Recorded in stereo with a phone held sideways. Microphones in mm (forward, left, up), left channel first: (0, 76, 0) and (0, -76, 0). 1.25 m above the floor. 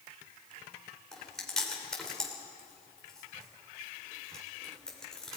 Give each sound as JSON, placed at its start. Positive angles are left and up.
{"t": 1.1, "sound": "chewing", "side_deg": 5, "distance_m": 4.0}